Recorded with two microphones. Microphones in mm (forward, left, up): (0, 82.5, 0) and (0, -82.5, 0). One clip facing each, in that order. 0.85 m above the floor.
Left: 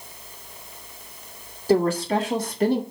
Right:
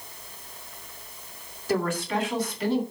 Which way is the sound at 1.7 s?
35° left (ahead or behind).